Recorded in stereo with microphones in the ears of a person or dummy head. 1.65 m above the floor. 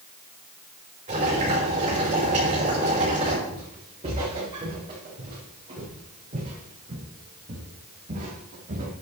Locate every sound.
1.1 s boiling: 35° right (ahead or behind), 6 m
3.5 s footsteps: 30° right (ahead or behind), 6.5 m; by 8.9 s 40° right (ahead or behind), 3.5 m